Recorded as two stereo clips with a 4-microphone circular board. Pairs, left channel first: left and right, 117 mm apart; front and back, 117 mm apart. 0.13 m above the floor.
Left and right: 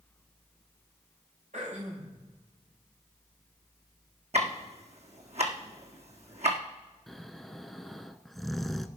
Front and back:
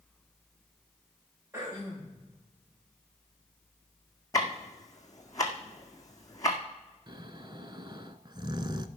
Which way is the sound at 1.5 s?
110° right.